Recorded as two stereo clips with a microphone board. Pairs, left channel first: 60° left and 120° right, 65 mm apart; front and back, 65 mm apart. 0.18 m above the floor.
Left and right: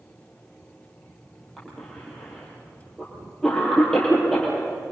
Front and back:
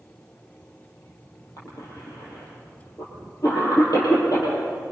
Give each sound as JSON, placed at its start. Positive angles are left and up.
{"t": 1.6, "sound": "a cough", "azimuth_deg": -20, "distance_m": 5.5}